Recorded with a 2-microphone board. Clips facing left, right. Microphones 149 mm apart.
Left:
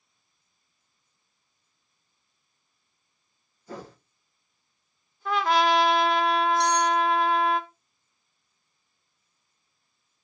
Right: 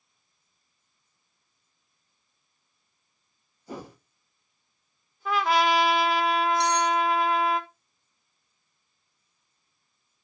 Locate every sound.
3.7 s a whoosh: 15° right (ahead or behind), 1.0 m
5.2 s a trumpet: 5° right (ahead or behind), 0.9 m
6.6 s cutlery clinking: 15° left (ahead or behind), 1.3 m